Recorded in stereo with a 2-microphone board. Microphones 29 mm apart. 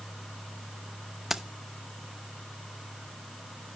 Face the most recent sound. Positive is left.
turn(degrees=-10)  # may be behind; listen again after turning